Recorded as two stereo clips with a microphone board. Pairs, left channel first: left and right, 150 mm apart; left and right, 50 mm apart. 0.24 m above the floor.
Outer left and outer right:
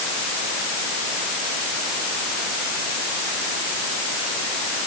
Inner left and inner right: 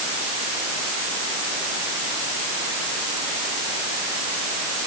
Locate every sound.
Only background noise.